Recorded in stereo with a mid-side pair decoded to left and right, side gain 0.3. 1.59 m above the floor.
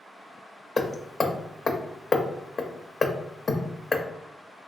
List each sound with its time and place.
0.8 s hammering: 50° left, 0.5 m